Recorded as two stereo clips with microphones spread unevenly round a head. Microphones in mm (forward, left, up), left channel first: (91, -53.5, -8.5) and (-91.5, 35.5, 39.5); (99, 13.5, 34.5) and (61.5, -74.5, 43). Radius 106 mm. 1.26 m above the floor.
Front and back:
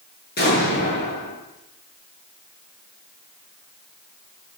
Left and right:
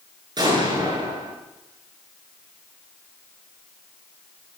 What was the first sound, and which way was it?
An explosion, 70° right.